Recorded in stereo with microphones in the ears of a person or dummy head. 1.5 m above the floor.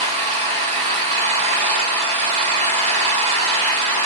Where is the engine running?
45° right (ahead or behind), 2.0 m.